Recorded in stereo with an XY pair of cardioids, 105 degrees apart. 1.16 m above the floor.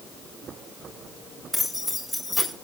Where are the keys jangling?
5° left, 5 m.